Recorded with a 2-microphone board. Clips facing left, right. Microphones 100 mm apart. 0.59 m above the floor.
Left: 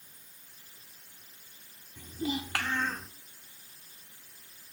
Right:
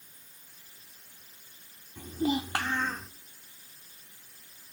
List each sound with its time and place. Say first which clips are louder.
2.0 s a child speaking: right 5 dB; 60° right (ahead or behind), 1.0 m; by 3.1 s centre (ahead or behind), 1.6 m